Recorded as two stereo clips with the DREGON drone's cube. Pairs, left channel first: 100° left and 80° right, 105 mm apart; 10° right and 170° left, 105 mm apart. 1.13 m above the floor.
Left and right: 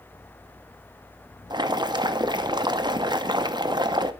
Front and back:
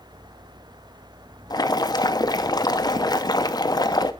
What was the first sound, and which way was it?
Boiling, 50° right.